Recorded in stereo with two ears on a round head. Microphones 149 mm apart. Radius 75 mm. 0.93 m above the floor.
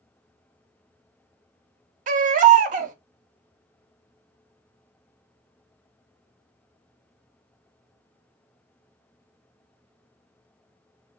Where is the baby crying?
45° right (ahead or behind), 0.5 m.